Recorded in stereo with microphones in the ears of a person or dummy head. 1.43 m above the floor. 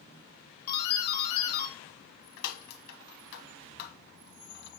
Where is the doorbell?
60° left (ahead or behind), 1.8 m.